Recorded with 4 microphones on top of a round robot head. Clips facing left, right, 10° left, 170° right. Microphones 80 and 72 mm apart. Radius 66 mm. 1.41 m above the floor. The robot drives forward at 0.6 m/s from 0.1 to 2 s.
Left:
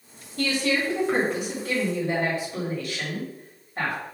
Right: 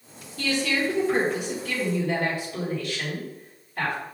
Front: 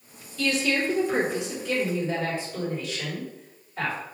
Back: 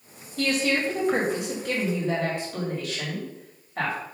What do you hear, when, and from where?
0.4 s a woman speaking: 145° left, 2.5 m; by 4.0 s 155° left, 3.5 m